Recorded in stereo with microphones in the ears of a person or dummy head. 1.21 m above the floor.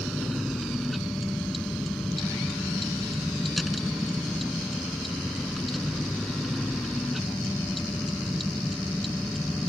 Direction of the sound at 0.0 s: Centre (ahead or behind).